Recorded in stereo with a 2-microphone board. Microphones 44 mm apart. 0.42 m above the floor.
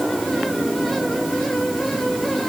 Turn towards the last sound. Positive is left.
No sound to turn to.